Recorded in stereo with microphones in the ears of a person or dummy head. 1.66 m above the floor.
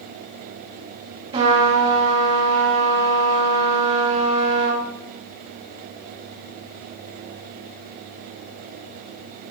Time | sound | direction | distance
1.3 | a trumpet | 30° right (ahead or behind) | 2.5 m